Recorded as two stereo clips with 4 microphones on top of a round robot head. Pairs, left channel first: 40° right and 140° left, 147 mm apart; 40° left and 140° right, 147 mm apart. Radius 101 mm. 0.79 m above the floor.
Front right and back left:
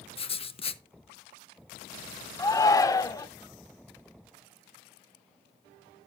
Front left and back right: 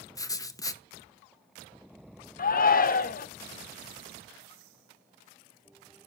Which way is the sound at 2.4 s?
25° left.